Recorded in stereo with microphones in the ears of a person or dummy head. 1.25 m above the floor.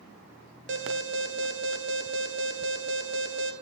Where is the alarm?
60° right (ahead or behind), 1.7 m.